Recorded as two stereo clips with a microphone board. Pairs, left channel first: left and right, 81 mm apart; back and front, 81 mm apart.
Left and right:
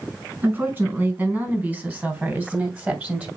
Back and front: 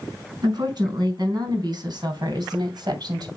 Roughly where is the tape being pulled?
I don't hear tape being pulled.